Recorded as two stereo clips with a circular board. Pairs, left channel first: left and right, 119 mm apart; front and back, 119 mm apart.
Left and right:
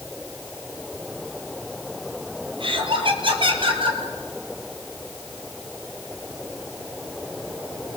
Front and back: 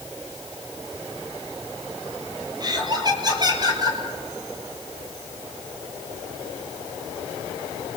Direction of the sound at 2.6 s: 130° right.